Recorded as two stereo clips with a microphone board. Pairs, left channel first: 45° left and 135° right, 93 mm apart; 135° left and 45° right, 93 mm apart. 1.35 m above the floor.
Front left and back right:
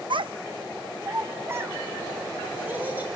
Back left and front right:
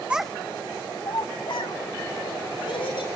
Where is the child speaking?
120° right, 0.8 m; by 3.1 s 155° left, 4.5 m.